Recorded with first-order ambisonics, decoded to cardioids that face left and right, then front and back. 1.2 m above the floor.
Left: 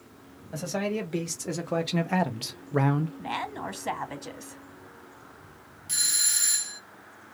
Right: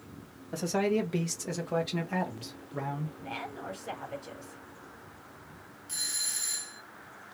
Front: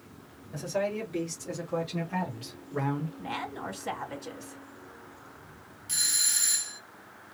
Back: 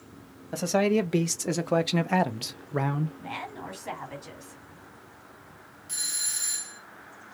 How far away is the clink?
I don't hear a clink.